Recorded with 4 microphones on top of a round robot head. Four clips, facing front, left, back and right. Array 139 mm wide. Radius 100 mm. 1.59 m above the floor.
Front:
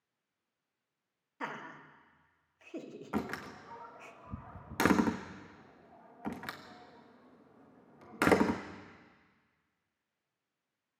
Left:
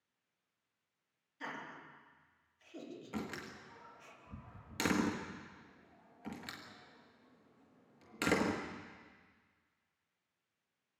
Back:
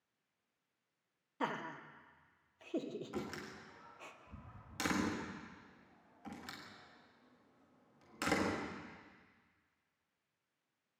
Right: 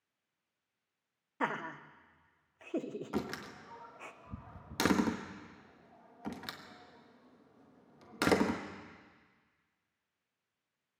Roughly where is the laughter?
Behind right.